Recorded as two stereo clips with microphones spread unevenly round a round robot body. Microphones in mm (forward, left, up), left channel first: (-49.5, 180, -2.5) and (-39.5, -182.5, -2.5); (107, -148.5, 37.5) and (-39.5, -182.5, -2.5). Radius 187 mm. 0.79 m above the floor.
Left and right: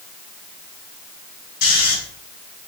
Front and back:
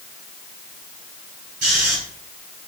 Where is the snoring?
130° left, 2.5 m.